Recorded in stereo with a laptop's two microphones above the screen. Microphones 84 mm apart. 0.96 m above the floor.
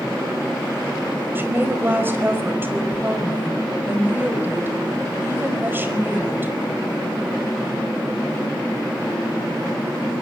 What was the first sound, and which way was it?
A woman speaking, 25° right (ahead or behind).